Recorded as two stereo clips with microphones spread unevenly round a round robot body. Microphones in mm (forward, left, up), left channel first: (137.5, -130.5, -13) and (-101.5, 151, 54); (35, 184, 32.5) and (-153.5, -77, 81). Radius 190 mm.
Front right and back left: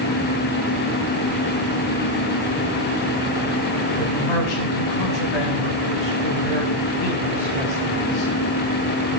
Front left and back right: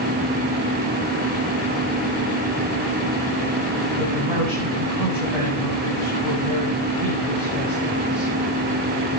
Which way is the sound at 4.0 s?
50° right.